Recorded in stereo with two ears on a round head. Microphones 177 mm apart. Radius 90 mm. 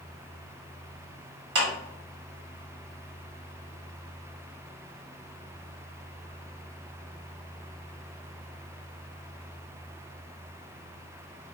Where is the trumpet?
No trumpet in this recording.